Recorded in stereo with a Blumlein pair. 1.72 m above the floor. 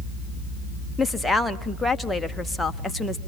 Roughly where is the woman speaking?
Ahead.